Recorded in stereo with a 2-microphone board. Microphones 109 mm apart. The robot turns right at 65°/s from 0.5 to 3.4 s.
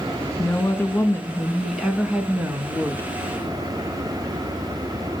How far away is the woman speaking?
About 1.2 m.